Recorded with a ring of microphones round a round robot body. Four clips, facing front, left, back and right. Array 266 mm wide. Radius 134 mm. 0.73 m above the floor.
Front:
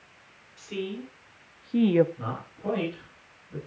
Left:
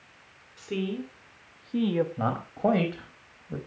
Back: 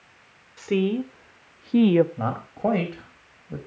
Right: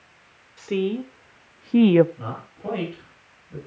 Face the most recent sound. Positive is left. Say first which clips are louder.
# left 7 dB, back 9 dB
turn(degrees=140)